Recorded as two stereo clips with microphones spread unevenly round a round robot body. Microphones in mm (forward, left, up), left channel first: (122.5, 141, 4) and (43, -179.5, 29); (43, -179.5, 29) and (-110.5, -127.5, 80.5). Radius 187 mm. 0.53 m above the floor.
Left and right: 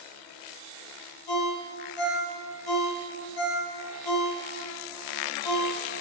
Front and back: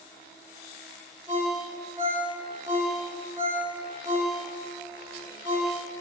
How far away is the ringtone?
About 5 m.